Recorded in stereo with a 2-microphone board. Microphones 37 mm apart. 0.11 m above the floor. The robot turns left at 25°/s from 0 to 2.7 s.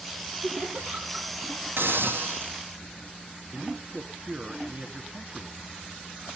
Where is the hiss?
75° right (ahead or behind), 1.6 m; by 2.6 s 65° right (ahead or behind), 1.6 m.